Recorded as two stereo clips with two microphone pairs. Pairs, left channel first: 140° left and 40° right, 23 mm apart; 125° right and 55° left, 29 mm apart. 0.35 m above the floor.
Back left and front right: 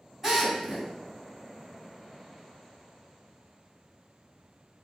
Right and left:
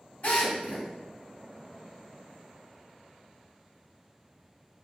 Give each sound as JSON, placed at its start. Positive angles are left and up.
{"t": 0.2, "sound": "a drill", "azimuth_deg": -105, "distance_m": 2.0}